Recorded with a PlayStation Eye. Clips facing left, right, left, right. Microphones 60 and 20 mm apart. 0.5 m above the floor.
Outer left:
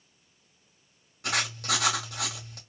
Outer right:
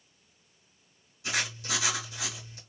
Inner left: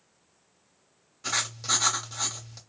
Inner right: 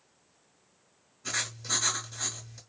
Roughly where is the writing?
Left.